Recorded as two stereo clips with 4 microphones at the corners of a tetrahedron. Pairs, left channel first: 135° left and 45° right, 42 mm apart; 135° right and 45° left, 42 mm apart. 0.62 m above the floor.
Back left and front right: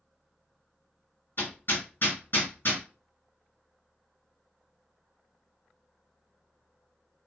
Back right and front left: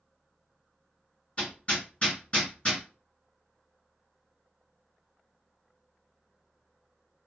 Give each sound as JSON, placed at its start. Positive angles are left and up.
{"t": 1.4, "sound": "hammering", "azimuth_deg": 165, "distance_m": 2.0}